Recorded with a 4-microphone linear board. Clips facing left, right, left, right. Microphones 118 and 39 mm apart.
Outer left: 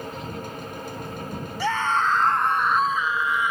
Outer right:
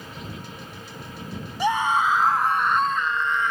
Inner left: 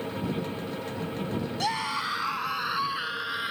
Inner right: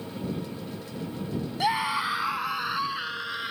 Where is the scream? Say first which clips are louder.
Outer right 2 dB, inner right 5 dB; 20° right (ahead or behind); by 3.5 s 10° left (ahead or behind).